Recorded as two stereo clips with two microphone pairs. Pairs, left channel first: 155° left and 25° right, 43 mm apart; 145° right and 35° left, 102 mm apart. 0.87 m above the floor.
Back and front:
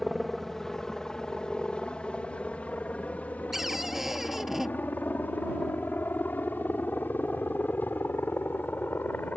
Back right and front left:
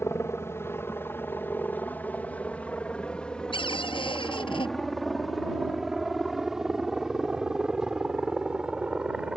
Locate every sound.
0.0 s a helicopter: 125° right; by 9.4 s 115° left
3.5 s a cupboard door: 110° right